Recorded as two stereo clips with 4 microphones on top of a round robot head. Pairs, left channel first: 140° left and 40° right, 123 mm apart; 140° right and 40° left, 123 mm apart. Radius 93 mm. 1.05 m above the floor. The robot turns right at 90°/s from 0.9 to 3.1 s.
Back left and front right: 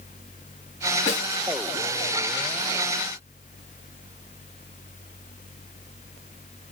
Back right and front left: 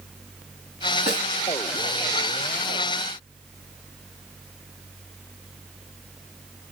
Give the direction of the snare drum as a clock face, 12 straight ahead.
6 o'clock.